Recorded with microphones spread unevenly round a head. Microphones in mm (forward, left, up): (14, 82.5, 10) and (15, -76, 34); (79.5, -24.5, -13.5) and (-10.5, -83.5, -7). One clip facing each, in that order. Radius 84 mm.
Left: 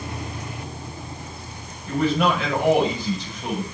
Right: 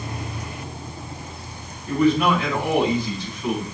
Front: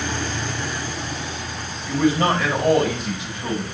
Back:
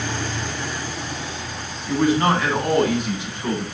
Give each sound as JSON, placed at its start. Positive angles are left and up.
{"t": 1.9, "sound": "a man speaking", "azimuth_deg": 70, "distance_m": 7.0}